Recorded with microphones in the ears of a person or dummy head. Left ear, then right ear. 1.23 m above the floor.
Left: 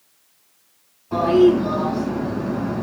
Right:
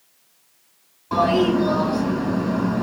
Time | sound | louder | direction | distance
1.1 | a toilet flushing | left 3 dB | 70° right (ahead or behind) | 6 m